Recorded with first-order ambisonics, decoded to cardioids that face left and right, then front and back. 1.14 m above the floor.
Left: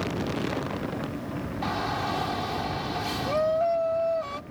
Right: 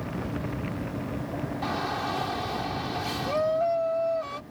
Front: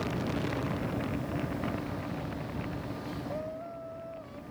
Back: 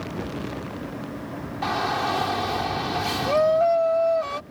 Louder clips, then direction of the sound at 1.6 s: Left 1 dB, back 13 dB; 175° left.